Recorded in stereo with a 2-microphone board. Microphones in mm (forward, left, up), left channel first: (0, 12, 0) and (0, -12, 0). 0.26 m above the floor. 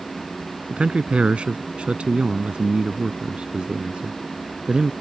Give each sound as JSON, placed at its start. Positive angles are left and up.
{"t": 0.7, "sound": "a man speaking", "side_deg": -60}